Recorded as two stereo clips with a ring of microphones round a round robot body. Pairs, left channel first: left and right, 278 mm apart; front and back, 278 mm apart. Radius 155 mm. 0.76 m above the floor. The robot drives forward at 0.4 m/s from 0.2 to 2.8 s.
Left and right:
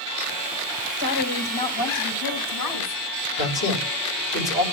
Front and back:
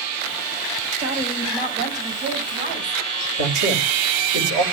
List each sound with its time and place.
1.0 s a woman speaking: 105° left, 4.5 m; by 3.0 s 115° left, 4.5 m
3.4 s a man speaking: 140° left, 4.5 m